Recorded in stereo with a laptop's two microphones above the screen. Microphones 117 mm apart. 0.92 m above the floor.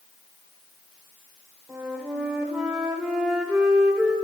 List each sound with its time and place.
1.7 s a flute: 10° right (ahead or behind), 3 m